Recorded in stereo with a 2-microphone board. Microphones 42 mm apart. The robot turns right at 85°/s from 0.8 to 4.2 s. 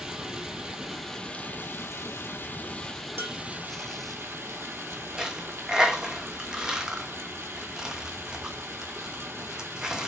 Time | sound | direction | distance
0.0 | running water | 20° right | 0.9 m
3.2 | dishes clattering | 65° right (ahead or behind) | 1.7 m
5.2 | a dropped coin | 20° right (ahead or behind) | 0.8 m